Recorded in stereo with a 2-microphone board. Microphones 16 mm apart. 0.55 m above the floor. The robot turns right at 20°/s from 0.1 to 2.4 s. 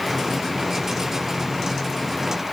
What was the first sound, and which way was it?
Only background noise.